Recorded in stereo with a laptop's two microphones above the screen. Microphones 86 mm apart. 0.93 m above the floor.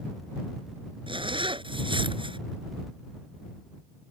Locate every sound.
1.1 s a zipper: 85° right